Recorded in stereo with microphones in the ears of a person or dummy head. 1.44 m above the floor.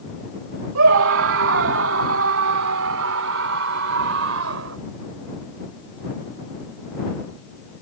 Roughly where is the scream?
Right.